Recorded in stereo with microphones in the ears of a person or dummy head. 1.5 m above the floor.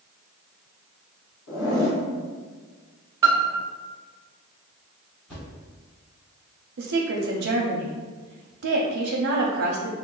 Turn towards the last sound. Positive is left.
turn(degrees=-65)  # may be behind; listen again after turning